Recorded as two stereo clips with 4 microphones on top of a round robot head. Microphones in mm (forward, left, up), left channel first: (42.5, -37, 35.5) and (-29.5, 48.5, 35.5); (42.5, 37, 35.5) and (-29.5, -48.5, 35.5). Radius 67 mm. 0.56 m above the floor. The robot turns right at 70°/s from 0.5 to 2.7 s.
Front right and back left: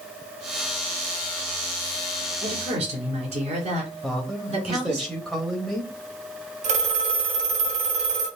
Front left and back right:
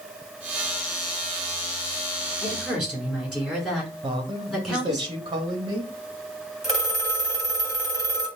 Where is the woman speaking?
120° left, 2.5 m; by 5.0 s 140° left, 2.5 m.